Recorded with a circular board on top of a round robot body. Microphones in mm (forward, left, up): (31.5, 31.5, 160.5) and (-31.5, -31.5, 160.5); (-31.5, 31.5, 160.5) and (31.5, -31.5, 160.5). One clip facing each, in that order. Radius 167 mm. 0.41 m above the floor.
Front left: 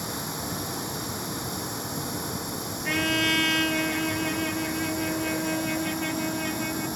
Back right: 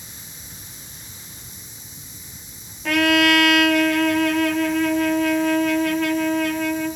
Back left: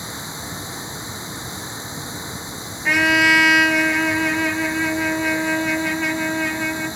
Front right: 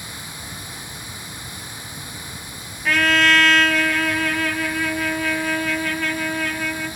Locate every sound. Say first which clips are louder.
0.0 s running water: front left 14 dB, back left 5 dB; 65° left
2.9 s a trumpet: back right 10 dB, back left 1 dB; 145° right